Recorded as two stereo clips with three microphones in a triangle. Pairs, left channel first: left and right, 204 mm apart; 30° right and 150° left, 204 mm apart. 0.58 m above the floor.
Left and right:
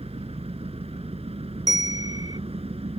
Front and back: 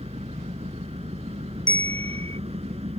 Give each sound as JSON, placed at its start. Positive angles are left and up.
{"t": 0.0, "sound": "an engine running", "azimuth_deg": -150}
{"t": 1.7, "sound": "a bell", "azimuth_deg": -20}